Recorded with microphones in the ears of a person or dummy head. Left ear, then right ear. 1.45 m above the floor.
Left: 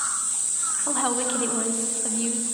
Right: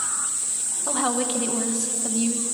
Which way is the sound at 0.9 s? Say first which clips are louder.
Right 2 dB; centre (ahead or behind).